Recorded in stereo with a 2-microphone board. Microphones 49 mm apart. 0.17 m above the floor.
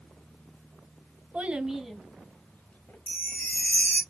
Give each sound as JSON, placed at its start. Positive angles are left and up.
{"t": 1.3, "sound": "a child speaking", "side_deg": -30, "distance_m": 0.8}
{"t": 3.1, "sound": "a chime", "side_deg": 20, "distance_m": 1.8}